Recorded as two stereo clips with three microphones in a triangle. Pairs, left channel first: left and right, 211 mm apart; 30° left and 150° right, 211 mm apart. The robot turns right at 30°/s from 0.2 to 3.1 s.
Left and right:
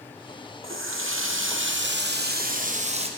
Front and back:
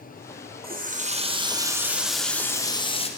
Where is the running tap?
105° right, 0.8 m; by 3.1 s 30° right, 0.8 m.